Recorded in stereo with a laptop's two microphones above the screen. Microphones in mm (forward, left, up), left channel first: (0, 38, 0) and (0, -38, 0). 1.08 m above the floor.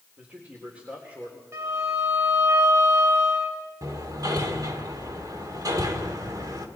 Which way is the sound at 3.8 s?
55° right (ahead or behind).